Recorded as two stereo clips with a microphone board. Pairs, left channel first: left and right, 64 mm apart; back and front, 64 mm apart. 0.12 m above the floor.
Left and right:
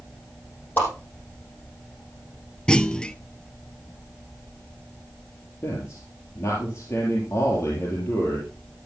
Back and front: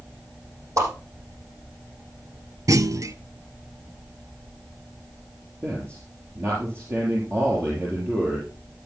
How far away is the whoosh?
About 5.5 m.